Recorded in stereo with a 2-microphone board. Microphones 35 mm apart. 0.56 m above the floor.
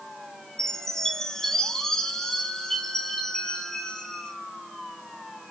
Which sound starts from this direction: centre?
A chime, at 0.6 s.